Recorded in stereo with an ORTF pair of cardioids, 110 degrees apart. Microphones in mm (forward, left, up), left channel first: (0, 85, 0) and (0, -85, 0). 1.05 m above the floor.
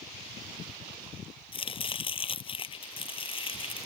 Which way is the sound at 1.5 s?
30° left.